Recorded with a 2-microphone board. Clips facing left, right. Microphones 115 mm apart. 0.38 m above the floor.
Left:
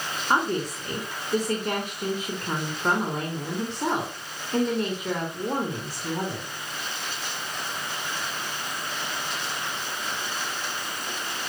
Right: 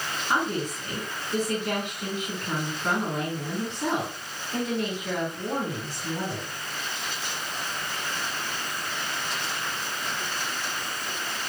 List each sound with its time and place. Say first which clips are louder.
0.3 s a woman speaking: left 3 dB; 40° left (ahead or behind), 4 m